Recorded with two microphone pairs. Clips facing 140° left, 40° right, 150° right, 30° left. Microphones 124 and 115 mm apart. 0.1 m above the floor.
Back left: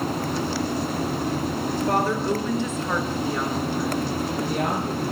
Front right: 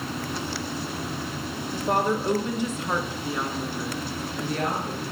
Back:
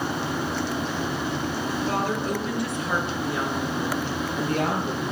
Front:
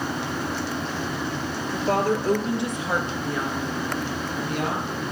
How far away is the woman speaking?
About 2 m.